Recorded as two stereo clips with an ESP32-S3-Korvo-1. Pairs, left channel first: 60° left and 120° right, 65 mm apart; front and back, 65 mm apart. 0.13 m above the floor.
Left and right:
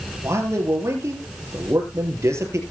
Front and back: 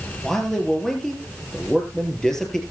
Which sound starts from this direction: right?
A man speaking, at 0.2 s.